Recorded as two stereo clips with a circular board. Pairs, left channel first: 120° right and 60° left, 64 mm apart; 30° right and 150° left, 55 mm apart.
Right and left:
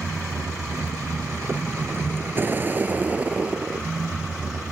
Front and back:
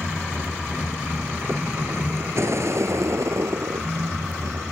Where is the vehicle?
85° left; by 4.7 s 140° left.